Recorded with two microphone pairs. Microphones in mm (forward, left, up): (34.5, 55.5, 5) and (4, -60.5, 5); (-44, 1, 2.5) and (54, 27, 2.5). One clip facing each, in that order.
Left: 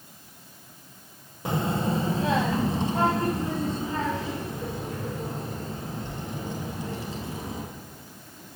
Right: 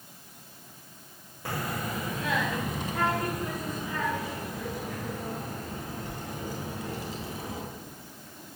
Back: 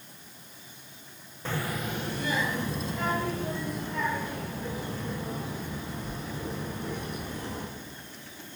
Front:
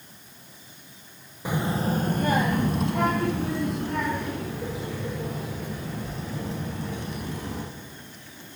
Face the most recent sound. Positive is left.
turn(degrees=10)